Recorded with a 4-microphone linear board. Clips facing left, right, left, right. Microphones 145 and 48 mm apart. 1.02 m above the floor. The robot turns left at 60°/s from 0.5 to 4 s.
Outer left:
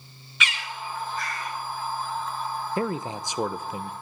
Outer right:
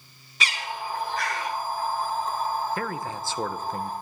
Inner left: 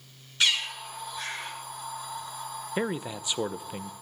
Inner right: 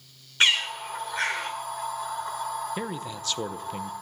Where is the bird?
35° right (ahead or behind), 2 m; by 1.5 s 80° right, 2 m.